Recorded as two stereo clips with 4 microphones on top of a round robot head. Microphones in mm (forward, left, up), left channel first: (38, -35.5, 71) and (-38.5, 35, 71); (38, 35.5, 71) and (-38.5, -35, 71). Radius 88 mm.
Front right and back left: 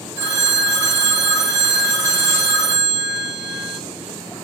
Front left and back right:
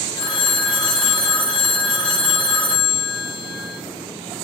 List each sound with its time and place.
0.2 s a phone ringing: 75° left, 0.7 m